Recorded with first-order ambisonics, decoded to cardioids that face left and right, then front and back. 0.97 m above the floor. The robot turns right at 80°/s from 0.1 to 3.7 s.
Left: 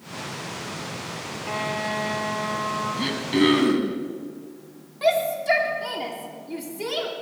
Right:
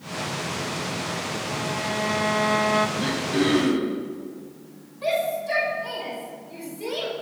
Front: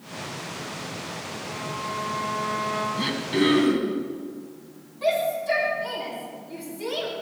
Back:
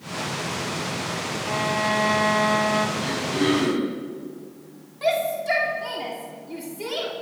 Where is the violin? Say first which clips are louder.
Left 4 dB, back 9 dB; 135° left, 1.0 m; by 2.9 s 110° right, 1.0 m.